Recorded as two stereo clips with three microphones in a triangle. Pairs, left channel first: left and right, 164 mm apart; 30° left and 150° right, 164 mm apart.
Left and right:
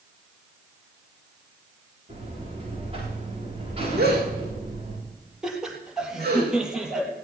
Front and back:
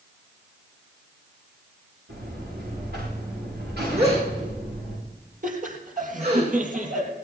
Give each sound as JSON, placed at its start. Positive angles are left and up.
{"t": 2.1, "sound": "a buzzer", "azimuth_deg": -145, "distance_m": 9.0}
{"t": 4.0, "sound": "a gasp", "azimuth_deg": -100, "distance_m": 5.5}
{"t": 5.4, "sound": "laughter", "azimuth_deg": -175, "distance_m": 3.0}